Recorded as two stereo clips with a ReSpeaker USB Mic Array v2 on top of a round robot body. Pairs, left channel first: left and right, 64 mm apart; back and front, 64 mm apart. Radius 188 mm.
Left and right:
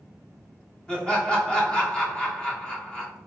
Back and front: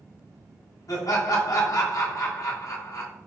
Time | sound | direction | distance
0.9 | laughter | 165° left | 1.6 m